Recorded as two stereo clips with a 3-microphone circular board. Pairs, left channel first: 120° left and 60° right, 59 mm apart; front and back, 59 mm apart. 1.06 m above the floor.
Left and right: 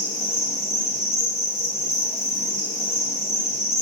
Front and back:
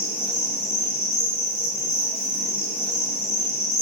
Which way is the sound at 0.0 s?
45° right.